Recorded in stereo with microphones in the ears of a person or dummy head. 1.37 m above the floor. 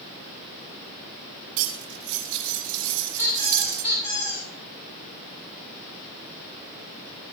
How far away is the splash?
No splash in this recording.